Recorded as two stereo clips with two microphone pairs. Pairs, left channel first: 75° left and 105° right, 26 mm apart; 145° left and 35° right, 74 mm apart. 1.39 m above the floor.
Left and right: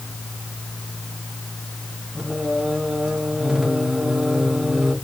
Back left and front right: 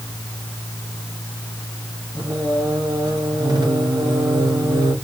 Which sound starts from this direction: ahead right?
Singing, at 2.1 s.